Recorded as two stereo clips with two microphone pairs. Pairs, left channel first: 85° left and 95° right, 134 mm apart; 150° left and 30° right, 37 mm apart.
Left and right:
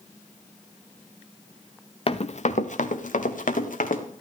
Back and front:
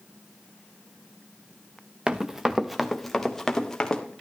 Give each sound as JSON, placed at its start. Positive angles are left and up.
{"t": 2.1, "sound": "running footsteps", "azimuth_deg": 40, "distance_m": 0.8}